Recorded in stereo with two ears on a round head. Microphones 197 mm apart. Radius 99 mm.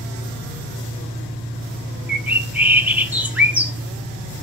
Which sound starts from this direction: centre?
A bird, at 2.1 s.